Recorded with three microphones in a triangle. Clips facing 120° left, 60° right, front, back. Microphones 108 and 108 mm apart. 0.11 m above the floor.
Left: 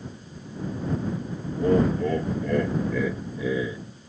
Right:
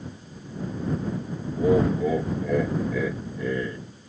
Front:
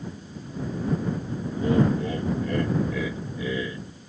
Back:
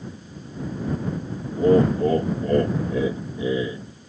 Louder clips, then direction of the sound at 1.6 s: Right 1 dB, back 5 dB; 140° right.